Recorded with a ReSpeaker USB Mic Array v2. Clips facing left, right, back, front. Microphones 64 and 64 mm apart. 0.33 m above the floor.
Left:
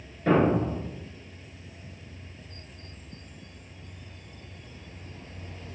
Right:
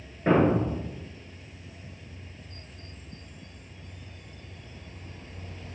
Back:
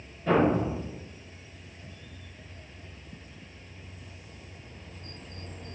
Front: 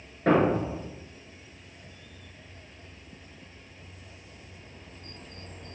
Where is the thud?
25° right, 2.5 m.